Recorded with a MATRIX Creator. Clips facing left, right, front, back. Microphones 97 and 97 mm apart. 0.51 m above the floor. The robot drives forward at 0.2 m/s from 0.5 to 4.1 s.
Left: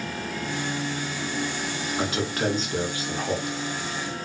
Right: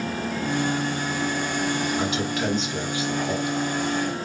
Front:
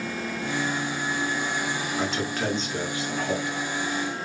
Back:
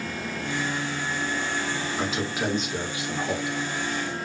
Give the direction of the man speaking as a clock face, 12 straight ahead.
9 o'clock.